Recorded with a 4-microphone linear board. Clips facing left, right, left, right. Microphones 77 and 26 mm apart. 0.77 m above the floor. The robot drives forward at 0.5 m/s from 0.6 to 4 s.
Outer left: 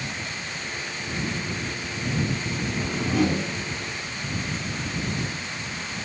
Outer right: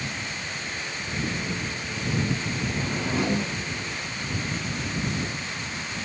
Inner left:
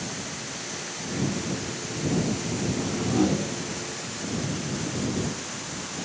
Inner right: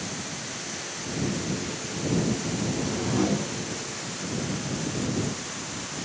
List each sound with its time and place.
2.7 s a whoosh: 20° right (ahead or behind), 2.5 m